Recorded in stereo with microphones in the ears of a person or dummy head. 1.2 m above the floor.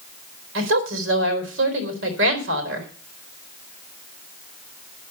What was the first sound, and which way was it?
A woman speaking, 75° right (ahead or behind).